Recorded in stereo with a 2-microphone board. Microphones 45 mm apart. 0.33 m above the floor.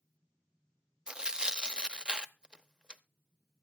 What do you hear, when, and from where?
1.1 s tearing paper: 20° right (ahead or behind), 0.5 m